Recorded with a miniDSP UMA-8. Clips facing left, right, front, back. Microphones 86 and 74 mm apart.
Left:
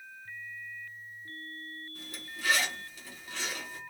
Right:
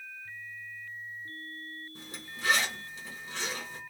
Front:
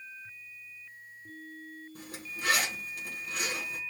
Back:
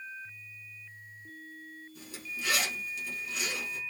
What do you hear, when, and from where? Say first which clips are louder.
1.9 s a zipper: right 1 dB, back 1 dB; 30° right, 3 m